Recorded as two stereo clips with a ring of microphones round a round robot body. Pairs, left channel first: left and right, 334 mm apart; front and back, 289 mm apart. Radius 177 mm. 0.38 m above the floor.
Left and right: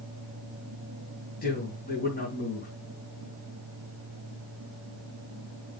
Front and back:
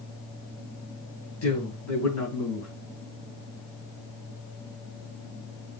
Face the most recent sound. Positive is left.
turn(degrees=30)